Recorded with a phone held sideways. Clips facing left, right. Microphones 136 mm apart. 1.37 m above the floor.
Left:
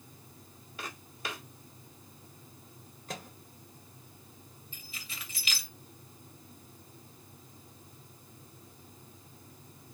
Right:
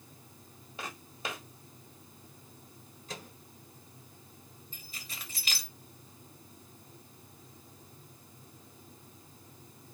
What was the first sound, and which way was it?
Footsteps, 25° right (ahead or behind).